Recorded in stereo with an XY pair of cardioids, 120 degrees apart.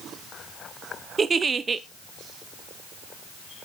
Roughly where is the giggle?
Ahead right.